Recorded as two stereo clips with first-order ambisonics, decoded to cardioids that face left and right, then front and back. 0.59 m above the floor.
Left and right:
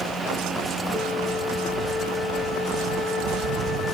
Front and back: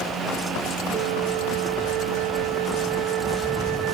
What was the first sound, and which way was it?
A flute, 160° left.